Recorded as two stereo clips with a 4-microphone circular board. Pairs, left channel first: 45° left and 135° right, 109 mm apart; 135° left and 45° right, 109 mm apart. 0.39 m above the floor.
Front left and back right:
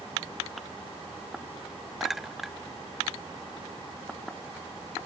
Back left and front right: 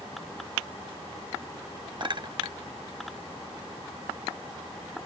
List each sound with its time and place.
2.0 s a clink: 45° right